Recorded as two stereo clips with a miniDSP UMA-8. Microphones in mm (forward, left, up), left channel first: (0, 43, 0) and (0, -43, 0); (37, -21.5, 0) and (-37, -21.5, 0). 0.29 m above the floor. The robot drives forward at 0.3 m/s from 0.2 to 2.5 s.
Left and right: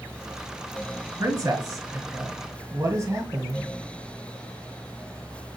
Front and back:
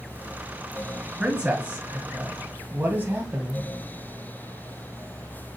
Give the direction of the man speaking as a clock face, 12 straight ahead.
4 o'clock.